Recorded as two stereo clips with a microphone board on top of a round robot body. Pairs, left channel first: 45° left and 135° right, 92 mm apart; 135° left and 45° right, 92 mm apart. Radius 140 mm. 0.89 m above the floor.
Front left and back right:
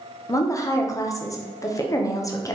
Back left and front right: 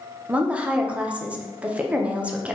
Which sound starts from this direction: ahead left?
A woman speaking, at 0.3 s.